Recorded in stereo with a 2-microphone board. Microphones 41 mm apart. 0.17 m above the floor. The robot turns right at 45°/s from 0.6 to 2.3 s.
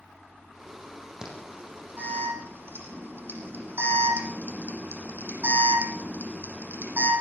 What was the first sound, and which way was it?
An alarm, 20° right (ahead or behind).